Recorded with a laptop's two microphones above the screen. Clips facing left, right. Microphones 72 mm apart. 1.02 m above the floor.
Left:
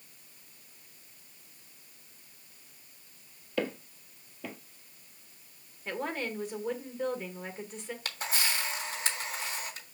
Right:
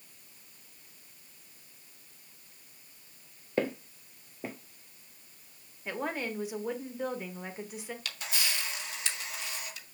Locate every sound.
3.6 s footsteps: 35° right (ahead or behind), 1.4 m
5.8 s a woman speaking: 5° right (ahead or behind), 1.4 m
8.1 s a camera shutter: 35° left (ahead or behind), 0.9 m